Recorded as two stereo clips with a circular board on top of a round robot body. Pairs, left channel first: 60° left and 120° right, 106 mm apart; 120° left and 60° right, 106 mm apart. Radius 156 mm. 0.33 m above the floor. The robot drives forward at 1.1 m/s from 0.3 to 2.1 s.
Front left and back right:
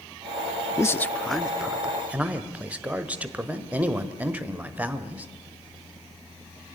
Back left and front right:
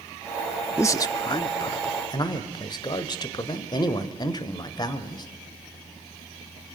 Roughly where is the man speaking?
Left.